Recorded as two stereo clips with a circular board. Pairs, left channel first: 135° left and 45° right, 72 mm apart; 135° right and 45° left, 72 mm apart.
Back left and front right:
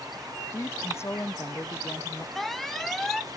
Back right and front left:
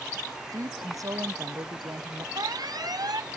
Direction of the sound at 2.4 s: 50° left.